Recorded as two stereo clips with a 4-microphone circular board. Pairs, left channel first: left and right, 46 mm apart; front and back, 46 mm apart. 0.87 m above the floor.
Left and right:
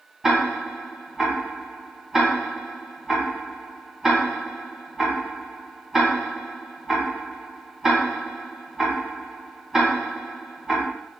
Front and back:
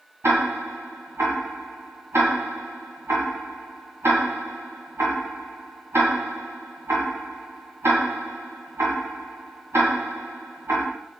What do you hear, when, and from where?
0.2 s ticking: 170° right, 1.7 m